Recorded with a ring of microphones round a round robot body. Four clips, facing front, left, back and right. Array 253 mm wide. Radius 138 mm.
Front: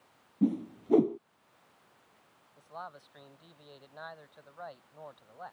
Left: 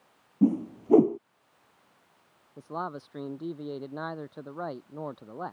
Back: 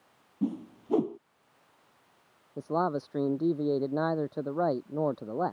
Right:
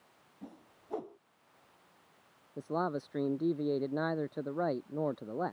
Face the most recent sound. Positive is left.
turn(degrees=-160)